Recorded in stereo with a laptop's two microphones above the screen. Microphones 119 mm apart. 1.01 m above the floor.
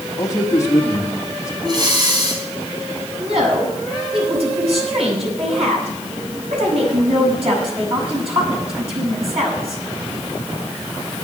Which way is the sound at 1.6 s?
35° right (ahead or behind).